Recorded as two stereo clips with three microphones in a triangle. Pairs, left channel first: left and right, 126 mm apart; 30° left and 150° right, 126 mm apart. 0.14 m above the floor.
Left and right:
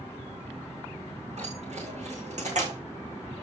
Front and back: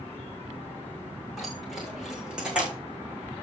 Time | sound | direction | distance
1.4 | keys jangling | 60° right | 7 m